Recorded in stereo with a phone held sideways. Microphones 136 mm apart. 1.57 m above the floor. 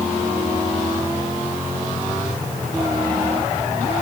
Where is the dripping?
I don't hear dripping.